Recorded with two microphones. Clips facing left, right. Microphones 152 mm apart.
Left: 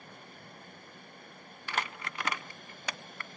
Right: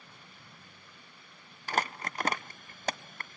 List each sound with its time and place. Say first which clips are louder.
1.7 s crumpling: right 4 dB; 40° right (ahead or behind), 0.6 m